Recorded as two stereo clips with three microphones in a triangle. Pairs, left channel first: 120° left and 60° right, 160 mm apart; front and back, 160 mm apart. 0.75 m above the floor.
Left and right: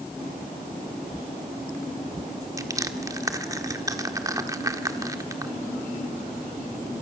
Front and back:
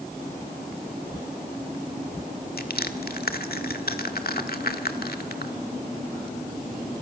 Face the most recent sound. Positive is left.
turn(degrees=10)